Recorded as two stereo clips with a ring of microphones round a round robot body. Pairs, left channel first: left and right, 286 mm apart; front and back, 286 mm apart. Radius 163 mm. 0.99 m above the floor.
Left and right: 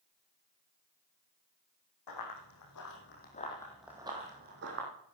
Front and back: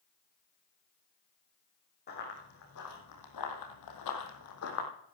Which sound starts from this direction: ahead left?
Running footsteps, at 2.1 s.